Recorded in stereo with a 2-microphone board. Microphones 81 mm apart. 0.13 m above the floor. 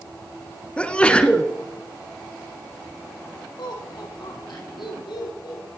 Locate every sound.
0.8 s a sneeze: 15° left (ahead or behind), 1.1 m
3.6 s laughter: 75° left (ahead or behind), 4 m